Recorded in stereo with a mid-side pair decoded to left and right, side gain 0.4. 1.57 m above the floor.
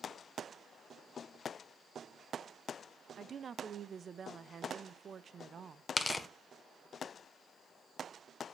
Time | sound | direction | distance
3.1 | a woman speaking | 50° right | 0.9 m
6.0 | tearing paper | 25° left | 1.5 m